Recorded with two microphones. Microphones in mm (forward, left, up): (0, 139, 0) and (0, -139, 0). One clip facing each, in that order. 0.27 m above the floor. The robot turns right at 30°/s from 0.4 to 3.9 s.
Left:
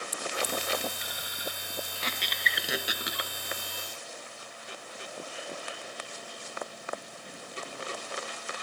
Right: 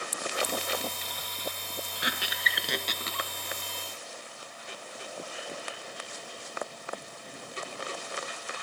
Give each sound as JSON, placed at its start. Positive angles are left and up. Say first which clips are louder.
{"t": 1.9, "sound": "a squeak", "louder": "right 2 dB", "azimuth_deg": -15}